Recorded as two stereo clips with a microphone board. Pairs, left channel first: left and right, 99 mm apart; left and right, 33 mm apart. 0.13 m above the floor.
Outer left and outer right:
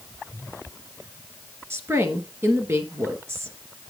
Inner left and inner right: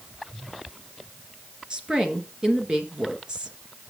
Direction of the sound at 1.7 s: 25° right (ahead or behind).